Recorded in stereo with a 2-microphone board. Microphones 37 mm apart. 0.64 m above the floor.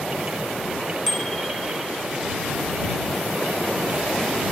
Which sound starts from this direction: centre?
A bicycle bell, at 1.1 s.